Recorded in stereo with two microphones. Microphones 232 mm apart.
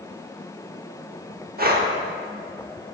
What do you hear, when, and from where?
1.6 s breathing: 40° right (ahead or behind), 0.8 m